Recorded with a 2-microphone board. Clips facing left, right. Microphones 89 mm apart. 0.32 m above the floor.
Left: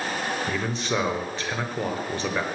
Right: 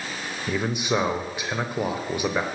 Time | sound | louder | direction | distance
0.5 | a man speaking | right 2 dB | 15° right (ahead or behind) | 0.9 m